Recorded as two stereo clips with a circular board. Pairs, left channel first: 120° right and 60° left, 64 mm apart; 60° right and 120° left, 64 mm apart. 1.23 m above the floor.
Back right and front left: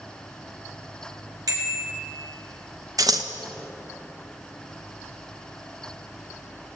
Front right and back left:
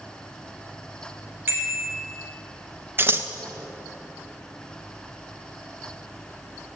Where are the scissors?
70° left, 1.4 m.